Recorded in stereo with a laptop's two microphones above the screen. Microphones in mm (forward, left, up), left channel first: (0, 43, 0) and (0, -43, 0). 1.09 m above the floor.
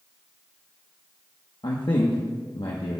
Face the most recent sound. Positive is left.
turn(degrees=60)  # may be behind; listen again after turning